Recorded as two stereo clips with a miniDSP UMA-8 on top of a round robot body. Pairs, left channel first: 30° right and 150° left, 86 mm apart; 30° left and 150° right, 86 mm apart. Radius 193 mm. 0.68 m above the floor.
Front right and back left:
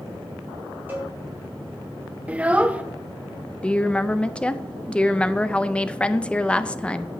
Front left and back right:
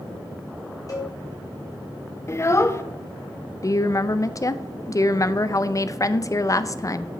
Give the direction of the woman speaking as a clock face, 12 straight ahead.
11 o'clock.